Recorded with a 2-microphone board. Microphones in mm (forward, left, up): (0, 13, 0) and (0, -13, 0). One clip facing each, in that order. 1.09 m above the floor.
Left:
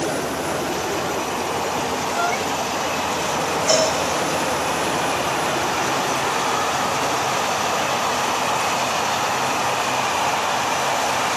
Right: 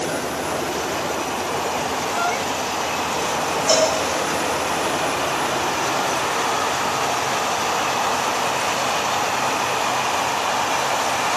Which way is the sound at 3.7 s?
5° right (ahead or behind).